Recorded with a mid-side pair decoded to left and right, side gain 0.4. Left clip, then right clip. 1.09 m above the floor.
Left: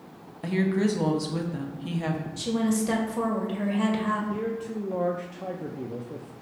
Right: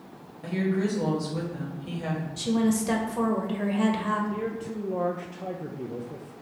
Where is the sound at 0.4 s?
60° left, 1.1 m.